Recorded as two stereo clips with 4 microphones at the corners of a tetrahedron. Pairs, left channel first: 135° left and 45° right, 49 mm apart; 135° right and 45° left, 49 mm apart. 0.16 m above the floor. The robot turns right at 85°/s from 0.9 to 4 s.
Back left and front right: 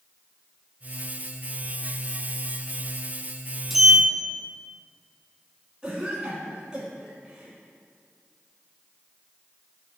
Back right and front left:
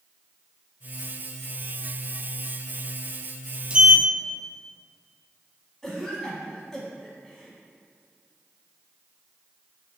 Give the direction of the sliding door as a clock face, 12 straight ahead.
11 o'clock.